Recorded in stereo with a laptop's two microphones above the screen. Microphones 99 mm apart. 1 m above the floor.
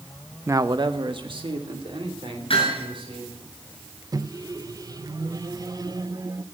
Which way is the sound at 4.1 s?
40° right (ahead or behind).